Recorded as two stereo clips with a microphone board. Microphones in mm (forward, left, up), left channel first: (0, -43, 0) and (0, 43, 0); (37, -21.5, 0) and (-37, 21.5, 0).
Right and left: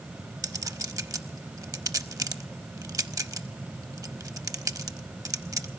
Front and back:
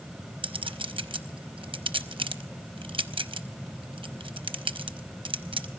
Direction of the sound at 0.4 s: 140° left.